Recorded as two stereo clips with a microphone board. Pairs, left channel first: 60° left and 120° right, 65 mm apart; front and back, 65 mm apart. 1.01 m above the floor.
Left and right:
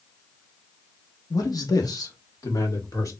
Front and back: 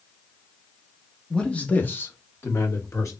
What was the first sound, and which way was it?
A man speaking, 80° left.